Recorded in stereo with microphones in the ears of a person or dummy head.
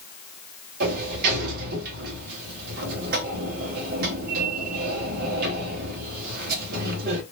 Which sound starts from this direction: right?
A sliding door, at 0.8 s.